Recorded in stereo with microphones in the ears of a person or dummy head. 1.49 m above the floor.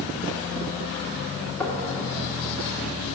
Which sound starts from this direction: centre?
Knocking, at 1.6 s.